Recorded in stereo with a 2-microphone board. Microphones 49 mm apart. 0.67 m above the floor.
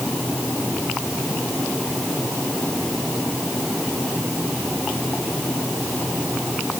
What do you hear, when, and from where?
Only background noise.